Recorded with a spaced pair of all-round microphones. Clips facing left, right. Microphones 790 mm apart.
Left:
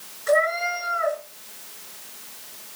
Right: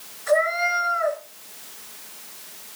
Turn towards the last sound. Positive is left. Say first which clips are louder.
# even
turn(degrees=-25)  # may be behind; listen again after turning